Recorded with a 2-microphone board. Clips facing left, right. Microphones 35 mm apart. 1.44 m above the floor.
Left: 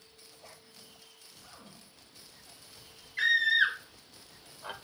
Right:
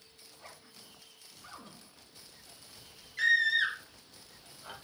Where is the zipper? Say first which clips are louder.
Right 2 dB; 25° right (ahead or behind), 3 m.